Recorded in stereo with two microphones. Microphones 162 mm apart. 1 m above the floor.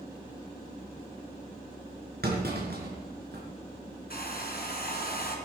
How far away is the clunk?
About 4.5 m.